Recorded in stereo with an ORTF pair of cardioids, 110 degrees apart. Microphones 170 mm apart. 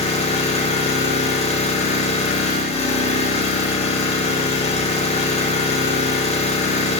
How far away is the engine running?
About 1.5 m.